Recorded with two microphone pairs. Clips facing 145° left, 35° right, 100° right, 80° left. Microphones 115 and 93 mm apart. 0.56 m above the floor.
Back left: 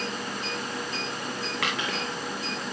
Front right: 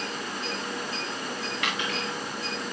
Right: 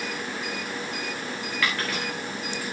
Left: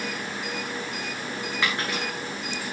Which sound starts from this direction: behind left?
A dropped coin, at 1.6 s.